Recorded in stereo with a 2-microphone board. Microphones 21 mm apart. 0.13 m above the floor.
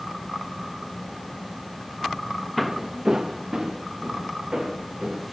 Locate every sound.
2.6 s footsteps: 5° left (ahead or behind), 0.5 m; by 5.2 s 40° right (ahead or behind), 4 m